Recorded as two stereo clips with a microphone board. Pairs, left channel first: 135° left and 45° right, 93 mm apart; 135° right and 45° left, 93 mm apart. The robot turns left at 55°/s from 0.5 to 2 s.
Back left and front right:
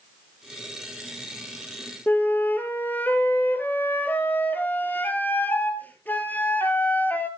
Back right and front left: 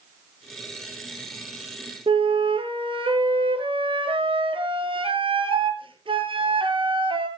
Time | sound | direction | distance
2.1 | a flute | 65° left | 1.8 m